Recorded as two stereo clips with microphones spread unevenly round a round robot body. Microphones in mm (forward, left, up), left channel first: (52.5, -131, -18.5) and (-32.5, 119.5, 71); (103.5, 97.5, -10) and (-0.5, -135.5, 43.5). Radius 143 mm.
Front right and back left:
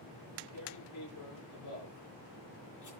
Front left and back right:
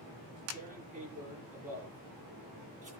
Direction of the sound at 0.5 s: 50° right.